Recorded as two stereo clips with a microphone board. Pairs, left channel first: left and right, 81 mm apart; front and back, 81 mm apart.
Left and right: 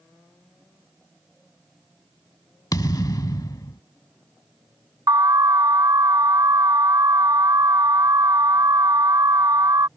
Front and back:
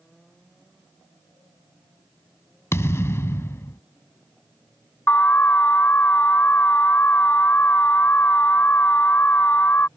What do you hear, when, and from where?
2.7 s a thud: 55° left
5.1 s an alarm: 60° right